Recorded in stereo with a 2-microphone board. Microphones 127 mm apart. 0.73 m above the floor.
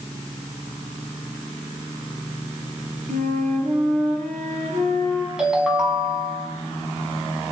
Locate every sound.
3.1 s a flute: 70° right (ahead or behind), 6 m
5.4 s a ringtone: 5° right (ahead or behind), 5 m